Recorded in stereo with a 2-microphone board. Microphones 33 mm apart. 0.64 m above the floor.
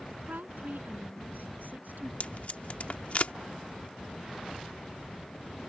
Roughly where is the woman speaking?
Right.